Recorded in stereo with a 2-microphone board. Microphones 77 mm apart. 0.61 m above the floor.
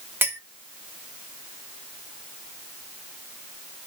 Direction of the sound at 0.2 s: 30° right (ahead or behind).